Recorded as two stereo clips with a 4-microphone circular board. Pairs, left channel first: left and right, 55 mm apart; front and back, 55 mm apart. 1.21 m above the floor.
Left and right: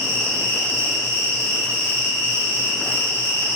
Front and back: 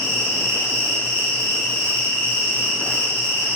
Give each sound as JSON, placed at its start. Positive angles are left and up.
{"t": 0.0, "sound": "an insect", "azimuth_deg": -135, "distance_m": 1.4}